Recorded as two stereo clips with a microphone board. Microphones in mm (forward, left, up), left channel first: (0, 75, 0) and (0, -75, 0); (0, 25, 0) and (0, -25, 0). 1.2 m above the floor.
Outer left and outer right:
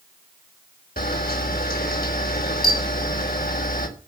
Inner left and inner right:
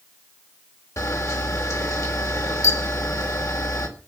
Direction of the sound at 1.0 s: 85° left.